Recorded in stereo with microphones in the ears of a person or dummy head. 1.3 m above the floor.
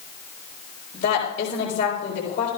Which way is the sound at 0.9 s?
55° left (ahead or behind).